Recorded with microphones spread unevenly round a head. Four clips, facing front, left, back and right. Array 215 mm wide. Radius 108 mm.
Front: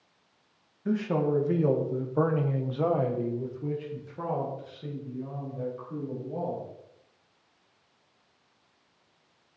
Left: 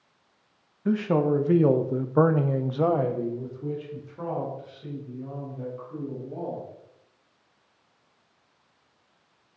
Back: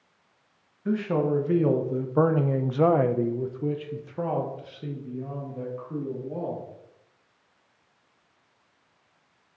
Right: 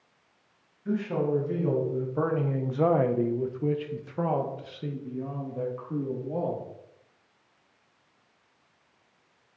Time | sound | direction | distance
0.8 | a man speaking | 90° left | 1.2 m